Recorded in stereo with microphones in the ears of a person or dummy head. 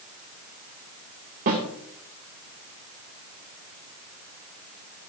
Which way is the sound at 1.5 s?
45° right (ahead or behind).